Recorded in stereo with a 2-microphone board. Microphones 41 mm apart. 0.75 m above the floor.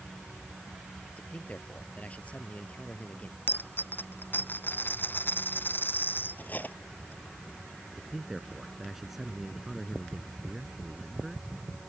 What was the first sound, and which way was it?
A man speaking, 30° left (ahead or behind).